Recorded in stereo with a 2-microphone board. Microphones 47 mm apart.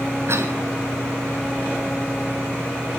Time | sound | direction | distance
0.3 | a cough | 65° right (ahead or behind) | 3 m